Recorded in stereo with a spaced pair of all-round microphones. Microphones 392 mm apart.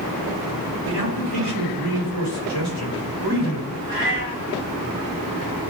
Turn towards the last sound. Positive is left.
turn(degrees=-70)  # may be behind; listen again after turning